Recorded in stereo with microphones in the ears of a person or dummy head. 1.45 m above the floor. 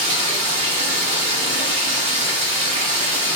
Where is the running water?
40° right (ahead or behind), 1.6 m.